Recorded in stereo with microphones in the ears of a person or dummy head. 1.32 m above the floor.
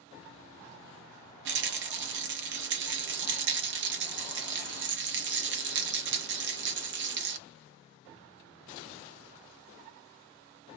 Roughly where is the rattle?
Right.